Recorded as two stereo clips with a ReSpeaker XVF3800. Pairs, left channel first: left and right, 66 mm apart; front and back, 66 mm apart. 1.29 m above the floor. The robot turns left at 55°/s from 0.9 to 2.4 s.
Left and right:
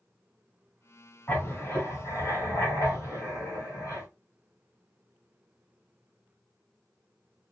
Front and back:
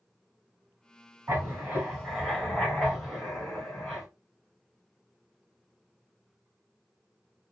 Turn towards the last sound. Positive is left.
turn(degrees=80)